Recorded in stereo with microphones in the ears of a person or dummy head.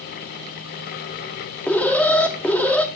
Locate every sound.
1.7 s an alarm: 5° left (ahead or behind), 0.8 m